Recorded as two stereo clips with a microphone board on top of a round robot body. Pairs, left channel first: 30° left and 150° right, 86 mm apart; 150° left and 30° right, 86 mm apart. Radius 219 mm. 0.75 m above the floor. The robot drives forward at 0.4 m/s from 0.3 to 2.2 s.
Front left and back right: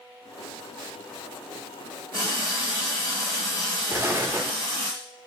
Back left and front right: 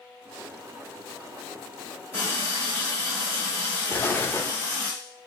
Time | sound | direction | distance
2.1 | a running tap | 140° right | 1.9 m
3.9 | an explosion | 175° right | 0.7 m